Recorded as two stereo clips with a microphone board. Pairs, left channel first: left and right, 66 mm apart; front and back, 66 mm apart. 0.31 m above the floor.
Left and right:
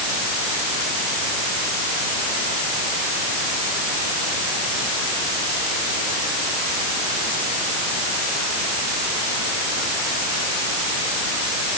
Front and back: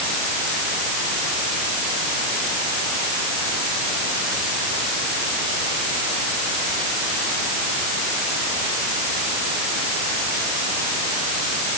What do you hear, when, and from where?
Only background noise.